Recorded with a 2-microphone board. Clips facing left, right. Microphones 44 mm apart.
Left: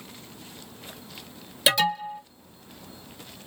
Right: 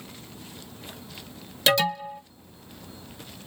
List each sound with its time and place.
1.7 s an alarm: 10° left (ahead or behind), 1.6 m